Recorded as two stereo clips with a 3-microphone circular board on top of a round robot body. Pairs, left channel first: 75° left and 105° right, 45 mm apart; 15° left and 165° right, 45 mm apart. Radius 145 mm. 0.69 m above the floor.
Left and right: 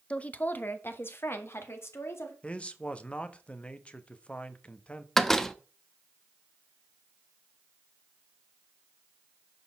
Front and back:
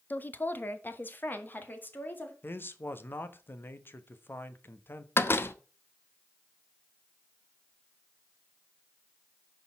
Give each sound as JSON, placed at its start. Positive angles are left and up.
{"t": 0.1, "sound": "a woman speaking", "azimuth_deg": 25, "distance_m": 1.2}
{"t": 2.4, "sound": "a man speaking", "azimuth_deg": 20, "distance_m": 1.5}
{"t": 5.2, "sound": "a door slam", "azimuth_deg": -5, "distance_m": 1.1}